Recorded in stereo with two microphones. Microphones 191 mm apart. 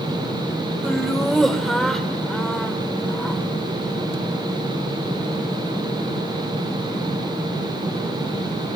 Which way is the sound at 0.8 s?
Centre (ahead or behind).